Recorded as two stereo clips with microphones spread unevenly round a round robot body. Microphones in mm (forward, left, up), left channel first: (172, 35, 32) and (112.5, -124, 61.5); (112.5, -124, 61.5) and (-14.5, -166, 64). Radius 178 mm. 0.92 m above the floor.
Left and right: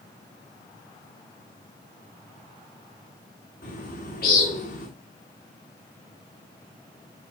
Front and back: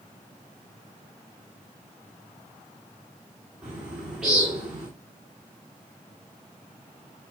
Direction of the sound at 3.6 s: 110° left.